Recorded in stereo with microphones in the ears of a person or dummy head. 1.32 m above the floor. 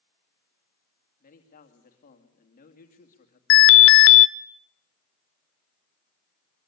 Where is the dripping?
No dripping in this recording.